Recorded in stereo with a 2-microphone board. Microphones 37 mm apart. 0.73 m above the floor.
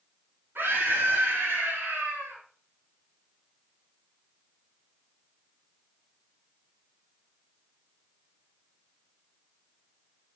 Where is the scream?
65° right (ahead or behind), 6.5 m.